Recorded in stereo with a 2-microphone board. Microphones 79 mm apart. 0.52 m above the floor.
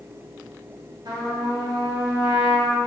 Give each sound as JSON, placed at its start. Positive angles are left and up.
{"t": 1.1, "sound": "a trumpet", "side_deg": -55, "distance_m": 0.7}